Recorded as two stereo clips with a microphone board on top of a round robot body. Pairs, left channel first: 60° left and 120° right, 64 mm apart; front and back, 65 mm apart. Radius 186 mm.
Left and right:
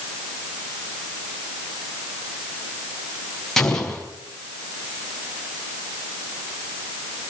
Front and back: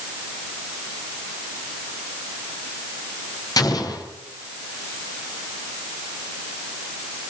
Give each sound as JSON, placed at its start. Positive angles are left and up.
{"t": 3.6, "sound": "an explosion", "azimuth_deg": -25, "distance_m": 4.5}